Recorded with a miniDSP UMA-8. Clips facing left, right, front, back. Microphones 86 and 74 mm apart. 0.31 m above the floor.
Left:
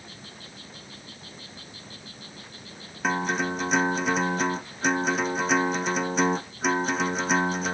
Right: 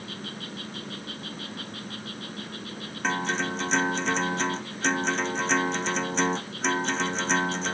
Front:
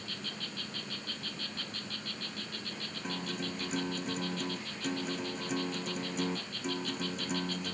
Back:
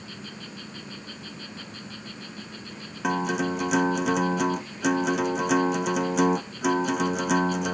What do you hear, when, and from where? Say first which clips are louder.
0.0 s an insect: right 7 dB, back 2 dB; 105° right
3.0 s a guitar: left 2 dB, back 14 dB; 170° left